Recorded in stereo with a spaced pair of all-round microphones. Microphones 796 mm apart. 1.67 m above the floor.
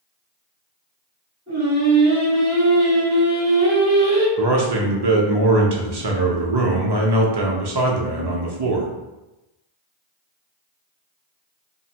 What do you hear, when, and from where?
1.5 s singing: 20° right (ahead or behind), 1.0 m
4.4 s a man speaking: 35° right (ahead or behind), 0.5 m